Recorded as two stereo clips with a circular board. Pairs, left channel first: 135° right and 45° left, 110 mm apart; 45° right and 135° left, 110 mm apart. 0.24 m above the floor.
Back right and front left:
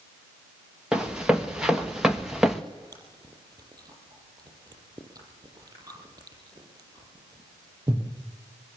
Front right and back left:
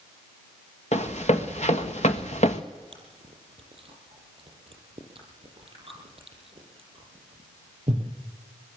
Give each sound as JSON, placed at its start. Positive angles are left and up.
{"t": 0.9, "sound": "running footsteps", "azimuth_deg": -35, "distance_m": 2.0}
{"t": 2.9, "sound": "chewing", "azimuth_deg": 100, "distance_m": 6.0}